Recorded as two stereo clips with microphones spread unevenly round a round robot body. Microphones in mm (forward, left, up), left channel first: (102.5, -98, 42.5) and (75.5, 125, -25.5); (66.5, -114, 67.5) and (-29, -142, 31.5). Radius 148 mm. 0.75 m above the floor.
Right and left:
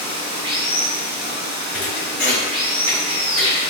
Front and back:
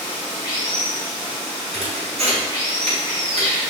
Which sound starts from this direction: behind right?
A thud, at 1.7 s.